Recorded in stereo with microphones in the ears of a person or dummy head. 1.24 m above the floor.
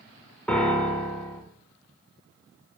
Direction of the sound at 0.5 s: 5° left (ahead or behind).